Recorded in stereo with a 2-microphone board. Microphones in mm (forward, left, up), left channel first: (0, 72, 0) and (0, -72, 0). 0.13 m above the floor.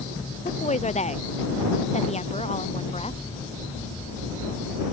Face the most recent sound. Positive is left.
turn(degrees=45)  # may be behind; listen again after turning